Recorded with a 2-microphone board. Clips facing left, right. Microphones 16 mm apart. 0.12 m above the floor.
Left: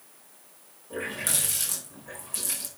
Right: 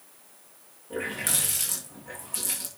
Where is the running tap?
10° right (ahead or behind), 6.5 m.